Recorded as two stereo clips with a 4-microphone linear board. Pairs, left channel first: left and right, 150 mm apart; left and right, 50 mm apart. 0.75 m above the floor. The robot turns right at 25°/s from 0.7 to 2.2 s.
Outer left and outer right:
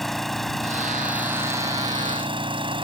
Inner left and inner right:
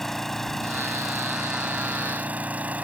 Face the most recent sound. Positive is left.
turn(degrees=-145)